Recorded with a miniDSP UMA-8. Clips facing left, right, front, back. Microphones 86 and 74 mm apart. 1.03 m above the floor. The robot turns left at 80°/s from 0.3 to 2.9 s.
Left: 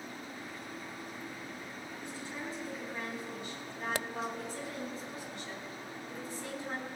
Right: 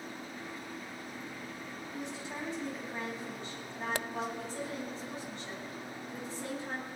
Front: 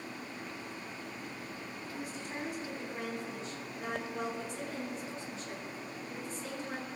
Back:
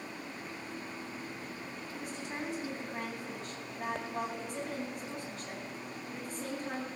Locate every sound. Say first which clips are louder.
1.9 s a woman speaking: right 3 dB, back 1 dB; 75° right, 9 m; by 6.9 s 150° right, 9 m